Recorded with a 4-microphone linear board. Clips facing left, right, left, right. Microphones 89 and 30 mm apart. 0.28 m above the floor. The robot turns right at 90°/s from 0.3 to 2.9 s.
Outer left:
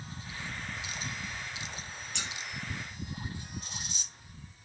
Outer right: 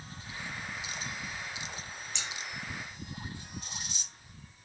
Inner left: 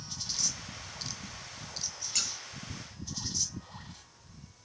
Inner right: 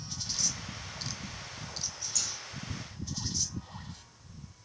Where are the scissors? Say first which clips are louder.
Outer left 2 dB, inner left 4 dB; 55° left (ahead or behind), 2 m; by 2.3 s 65° left (ahead or behind), 2 m.